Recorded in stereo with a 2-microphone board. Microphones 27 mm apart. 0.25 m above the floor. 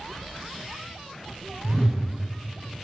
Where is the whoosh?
40° right (ahead or behind), 1.9 m.